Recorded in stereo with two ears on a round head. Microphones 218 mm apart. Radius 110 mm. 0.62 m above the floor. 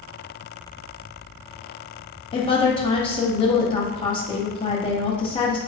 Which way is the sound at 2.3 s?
20° left (ahead or behind).